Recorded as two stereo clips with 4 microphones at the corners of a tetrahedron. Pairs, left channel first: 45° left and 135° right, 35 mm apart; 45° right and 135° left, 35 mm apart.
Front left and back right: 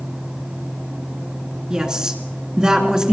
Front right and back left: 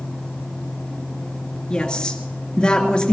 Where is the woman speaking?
85° right, 1.9 m.